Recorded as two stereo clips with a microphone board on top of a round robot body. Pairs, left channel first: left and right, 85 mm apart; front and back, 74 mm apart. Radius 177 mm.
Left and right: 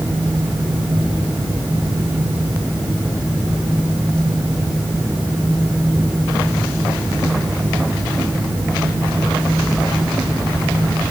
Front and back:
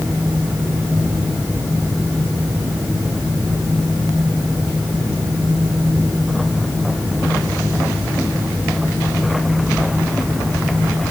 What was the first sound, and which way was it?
Only background noise.